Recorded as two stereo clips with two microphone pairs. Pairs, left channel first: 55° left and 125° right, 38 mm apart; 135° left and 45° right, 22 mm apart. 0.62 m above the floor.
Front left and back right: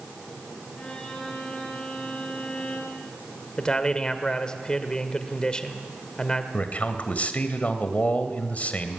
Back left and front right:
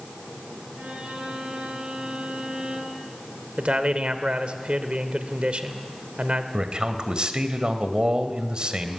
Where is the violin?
10° right, 8 m.